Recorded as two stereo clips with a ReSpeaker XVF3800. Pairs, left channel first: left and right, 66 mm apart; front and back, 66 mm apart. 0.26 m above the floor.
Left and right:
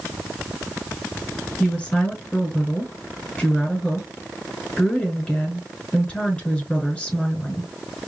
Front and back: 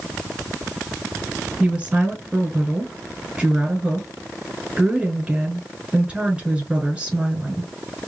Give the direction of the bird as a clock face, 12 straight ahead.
I don't hear a bird.